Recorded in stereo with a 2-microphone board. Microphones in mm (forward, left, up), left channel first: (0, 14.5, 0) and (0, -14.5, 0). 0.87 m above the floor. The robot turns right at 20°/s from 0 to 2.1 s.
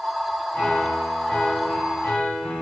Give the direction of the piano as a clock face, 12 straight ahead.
11 o'clock.